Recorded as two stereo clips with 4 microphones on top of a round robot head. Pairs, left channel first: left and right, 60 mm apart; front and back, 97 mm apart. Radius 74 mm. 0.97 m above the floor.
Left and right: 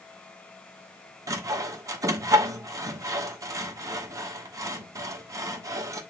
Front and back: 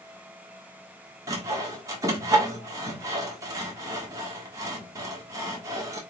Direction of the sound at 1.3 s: 115° right.